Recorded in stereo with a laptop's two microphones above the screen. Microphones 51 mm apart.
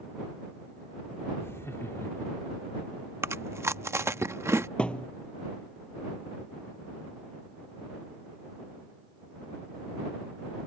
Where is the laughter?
60° left (ahead or behind).